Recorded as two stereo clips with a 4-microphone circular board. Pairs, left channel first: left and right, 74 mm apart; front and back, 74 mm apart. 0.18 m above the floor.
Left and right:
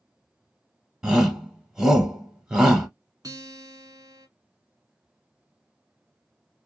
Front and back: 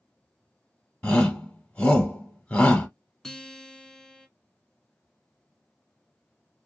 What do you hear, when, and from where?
1.0 s a shout: 30° right, 1.0 m
3.2 s a guitar: 80° right, 0.7 m